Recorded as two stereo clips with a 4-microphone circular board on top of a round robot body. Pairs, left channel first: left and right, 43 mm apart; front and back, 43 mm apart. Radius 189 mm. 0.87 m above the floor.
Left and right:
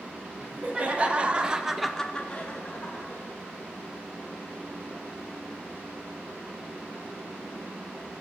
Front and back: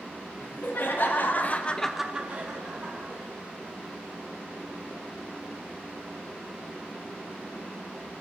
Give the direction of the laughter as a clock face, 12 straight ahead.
1 o'clock.